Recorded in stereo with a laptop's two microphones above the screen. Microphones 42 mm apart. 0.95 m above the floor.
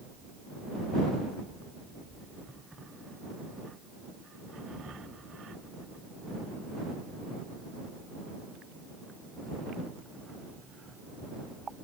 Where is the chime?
No chime in this recording.